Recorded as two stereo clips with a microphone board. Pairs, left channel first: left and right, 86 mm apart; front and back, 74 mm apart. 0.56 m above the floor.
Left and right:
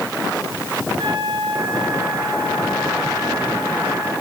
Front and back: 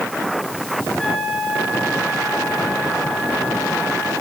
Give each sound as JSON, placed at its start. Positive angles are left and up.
{"t": 1.0, "sound": "a trumpet", "azimuth_deg": -90, "distance_m": 5.5}